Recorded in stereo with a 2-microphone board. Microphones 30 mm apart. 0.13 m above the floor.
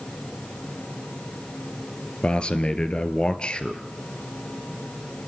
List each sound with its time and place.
2.2 s a man speaking: 35° left (ahead or behind), 2.5 m